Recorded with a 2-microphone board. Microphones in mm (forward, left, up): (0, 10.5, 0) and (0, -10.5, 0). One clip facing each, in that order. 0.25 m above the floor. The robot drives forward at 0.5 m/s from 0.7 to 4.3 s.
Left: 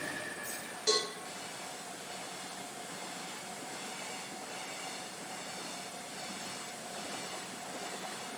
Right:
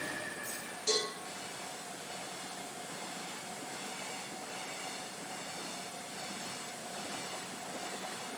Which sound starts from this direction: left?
A cowbell, at 0.9 s.